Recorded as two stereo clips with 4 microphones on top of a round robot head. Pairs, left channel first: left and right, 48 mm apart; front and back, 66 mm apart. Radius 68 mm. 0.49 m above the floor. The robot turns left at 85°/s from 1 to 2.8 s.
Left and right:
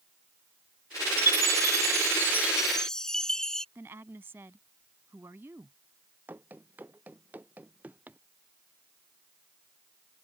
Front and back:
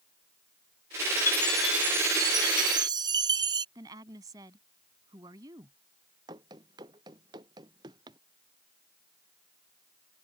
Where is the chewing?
No chewing in this recording.